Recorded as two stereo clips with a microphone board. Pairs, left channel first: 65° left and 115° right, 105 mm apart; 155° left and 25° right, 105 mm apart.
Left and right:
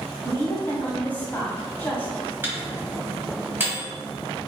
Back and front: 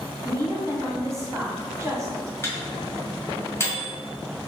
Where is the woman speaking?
10° left, 1.2 m.